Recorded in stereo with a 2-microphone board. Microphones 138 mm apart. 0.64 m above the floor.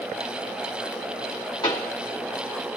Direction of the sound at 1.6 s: 30° left (ahead or behind).